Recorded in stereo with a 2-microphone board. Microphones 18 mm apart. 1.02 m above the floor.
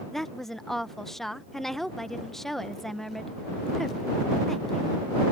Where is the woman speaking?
20° left (ahead or behind).